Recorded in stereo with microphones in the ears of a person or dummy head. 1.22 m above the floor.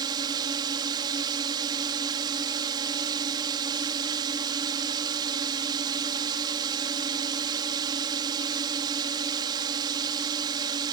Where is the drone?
20° right (ahead or behind).